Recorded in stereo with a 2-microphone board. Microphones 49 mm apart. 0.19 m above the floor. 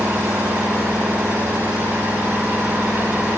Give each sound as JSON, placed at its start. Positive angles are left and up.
{"t": 0.0, "sound": "an engine running", "side_deg": -85, "distance_m": 9.5}